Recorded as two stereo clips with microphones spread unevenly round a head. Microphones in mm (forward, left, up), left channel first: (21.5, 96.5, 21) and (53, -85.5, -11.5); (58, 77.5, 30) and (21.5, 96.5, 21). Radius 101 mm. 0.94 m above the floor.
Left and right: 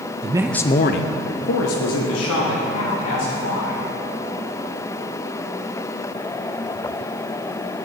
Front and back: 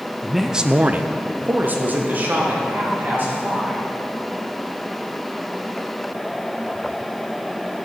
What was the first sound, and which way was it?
A man speaking, 120° right.